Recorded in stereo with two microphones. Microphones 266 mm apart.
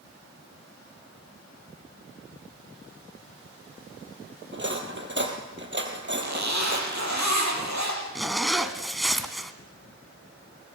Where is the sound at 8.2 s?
Centre (ahead or behind), 1.5 m.